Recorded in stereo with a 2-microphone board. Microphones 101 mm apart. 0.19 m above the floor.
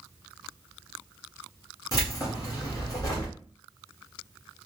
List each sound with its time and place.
1.9 s keys jangling: 40° left (ahead or behind), 1.6 m